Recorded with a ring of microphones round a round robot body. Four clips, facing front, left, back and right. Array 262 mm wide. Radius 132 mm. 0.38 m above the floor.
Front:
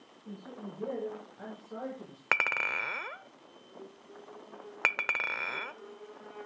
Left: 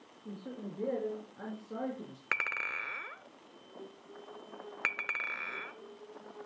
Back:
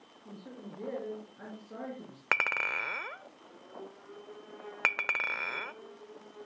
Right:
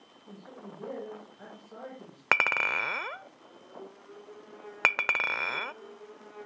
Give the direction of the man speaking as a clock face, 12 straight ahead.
9 o'clock.